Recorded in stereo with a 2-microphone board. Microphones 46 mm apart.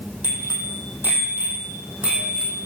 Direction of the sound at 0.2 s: 45° right (ahead or behind).